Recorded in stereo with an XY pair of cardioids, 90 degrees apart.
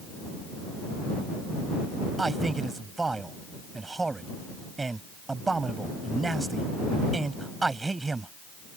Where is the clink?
I don't hear a clink.